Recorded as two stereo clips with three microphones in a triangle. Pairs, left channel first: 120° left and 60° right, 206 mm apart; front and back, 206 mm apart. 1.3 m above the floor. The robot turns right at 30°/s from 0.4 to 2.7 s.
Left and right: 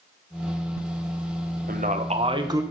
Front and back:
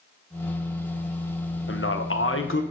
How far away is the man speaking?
About 0.9 m.